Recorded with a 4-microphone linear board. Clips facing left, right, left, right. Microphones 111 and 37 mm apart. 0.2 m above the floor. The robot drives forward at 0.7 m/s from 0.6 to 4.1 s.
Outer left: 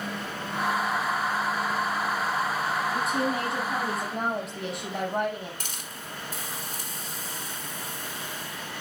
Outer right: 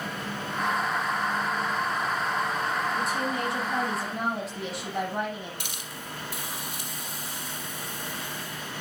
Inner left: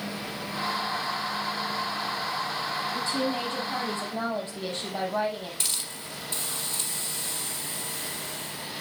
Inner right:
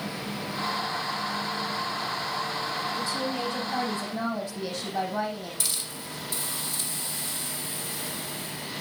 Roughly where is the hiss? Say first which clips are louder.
Outer right 1 dB, even; left.